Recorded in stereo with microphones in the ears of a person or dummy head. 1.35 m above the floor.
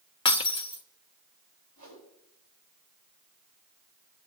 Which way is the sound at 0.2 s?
25° left (ahead or behind).